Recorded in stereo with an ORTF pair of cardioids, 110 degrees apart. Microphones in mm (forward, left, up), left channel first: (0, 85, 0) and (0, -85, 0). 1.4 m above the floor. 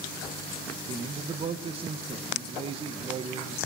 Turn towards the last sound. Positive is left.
turn(degrees=-35)